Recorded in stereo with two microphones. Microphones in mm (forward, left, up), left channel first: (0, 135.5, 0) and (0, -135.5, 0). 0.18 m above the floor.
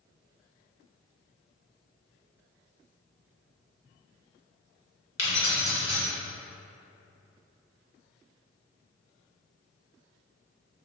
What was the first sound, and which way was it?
Keys jangling, 45° left (ahead or behind).